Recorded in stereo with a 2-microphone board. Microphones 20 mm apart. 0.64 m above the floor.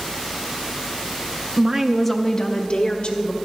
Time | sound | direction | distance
1.6 | a woman speaking | 40° right (ahead or behind) | 0.7 m